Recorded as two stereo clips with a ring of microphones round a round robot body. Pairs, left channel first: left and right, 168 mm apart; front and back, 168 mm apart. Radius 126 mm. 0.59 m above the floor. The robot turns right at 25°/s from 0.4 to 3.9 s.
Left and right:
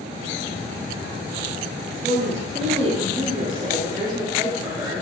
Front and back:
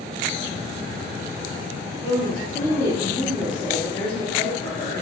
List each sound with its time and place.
2.0 s a woman speaking: 80° right, 0.7 m; by 5.0 s 35° right, 0.7 m